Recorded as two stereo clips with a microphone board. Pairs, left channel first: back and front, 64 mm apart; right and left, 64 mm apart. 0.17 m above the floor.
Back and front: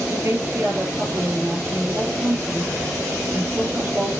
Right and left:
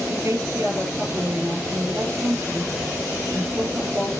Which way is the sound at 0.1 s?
50° left.